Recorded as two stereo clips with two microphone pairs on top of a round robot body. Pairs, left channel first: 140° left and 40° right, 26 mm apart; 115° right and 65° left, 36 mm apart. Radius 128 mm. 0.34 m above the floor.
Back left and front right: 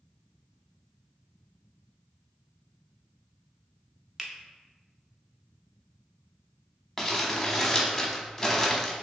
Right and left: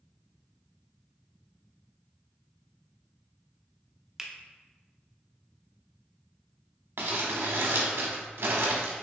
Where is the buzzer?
No buzzer in this recording.